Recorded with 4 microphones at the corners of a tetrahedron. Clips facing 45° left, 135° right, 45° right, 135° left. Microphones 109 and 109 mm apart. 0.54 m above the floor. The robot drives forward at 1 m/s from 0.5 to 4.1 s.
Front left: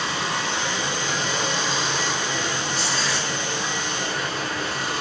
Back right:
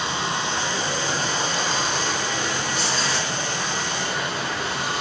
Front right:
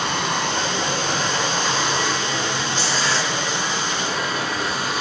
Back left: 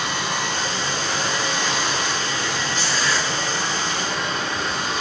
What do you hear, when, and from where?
0.0 s running water: 70° right, 3.5 m; by 5.0 s 130° right, 4 m
2.7 s tearing paper: 100° right, 5 m; by 3.3 s 105° right, 5 m